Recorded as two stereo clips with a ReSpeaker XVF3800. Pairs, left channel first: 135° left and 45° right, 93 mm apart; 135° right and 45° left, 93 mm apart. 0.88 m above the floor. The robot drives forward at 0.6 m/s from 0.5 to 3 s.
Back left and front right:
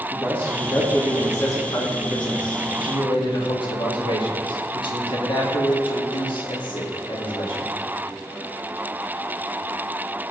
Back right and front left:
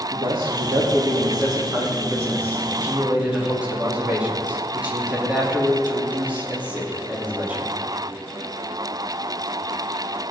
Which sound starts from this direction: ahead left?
A man speaking, at 0.1 s.